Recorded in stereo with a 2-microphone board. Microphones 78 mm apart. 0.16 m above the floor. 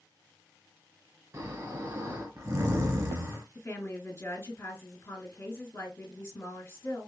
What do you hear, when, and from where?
1.3 s snoring: 40° right (ahead or behind), 0.9 m
3.5 s a woman speaking: 35° left (ahead or behind), 2.5 m